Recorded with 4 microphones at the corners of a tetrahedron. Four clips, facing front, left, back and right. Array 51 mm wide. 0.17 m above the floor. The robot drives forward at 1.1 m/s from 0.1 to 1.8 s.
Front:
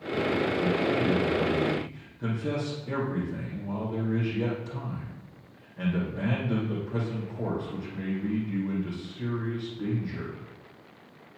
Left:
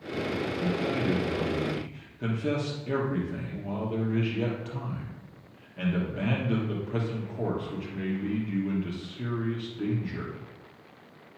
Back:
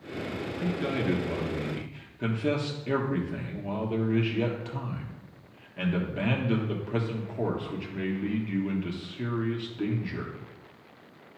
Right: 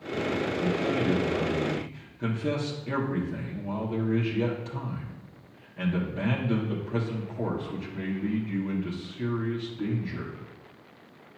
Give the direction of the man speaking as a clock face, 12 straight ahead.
6 o'clock.